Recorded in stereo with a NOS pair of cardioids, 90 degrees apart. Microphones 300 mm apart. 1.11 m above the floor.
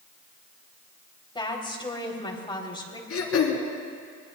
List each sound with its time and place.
1.4 s a woman speaking: 15° left, 3.5 m
3.1 s throat clearing: 50° left, 3 m